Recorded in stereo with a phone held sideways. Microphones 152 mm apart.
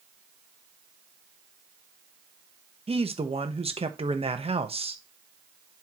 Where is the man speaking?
40° right (ahead or behind), 1.2 m.